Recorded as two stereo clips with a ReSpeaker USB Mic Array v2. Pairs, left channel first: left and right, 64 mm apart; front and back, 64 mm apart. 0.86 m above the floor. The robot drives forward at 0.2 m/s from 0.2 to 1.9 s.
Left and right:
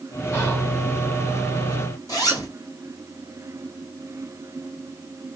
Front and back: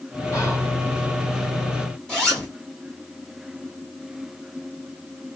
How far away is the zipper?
About 2 m.